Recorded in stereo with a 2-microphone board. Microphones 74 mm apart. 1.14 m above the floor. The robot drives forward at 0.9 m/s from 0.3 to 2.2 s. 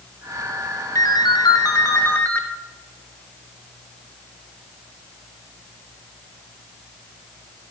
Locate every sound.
0.9 s a ringtone: 50° left (ahead or behind), 0.6 m; by 2.4 s 30° left (ahead or behind), 0.9 m